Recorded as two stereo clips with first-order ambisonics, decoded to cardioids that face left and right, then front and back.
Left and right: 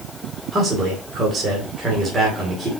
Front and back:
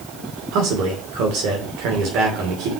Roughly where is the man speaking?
Behind right.